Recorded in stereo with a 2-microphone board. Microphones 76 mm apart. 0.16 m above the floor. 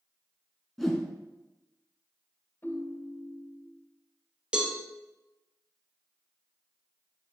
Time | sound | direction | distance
0.8 | a whoosh | centre (ahead or behind) | 1.3 m
2.6 | a ringtone | 35° left (ahead or behind) | 2 m
4.5 | a cowbell | 15° right (ahead or behind) | 1.4 m